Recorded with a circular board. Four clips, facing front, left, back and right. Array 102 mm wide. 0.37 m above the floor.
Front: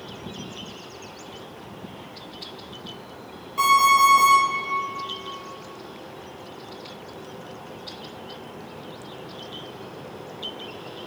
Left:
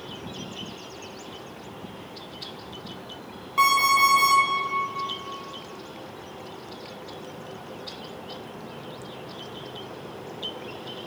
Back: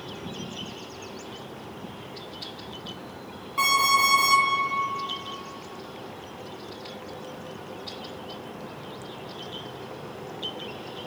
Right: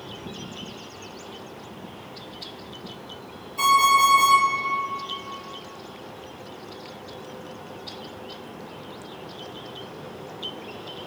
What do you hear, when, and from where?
3.6 s an alarm clock: 100° left, 1.4 m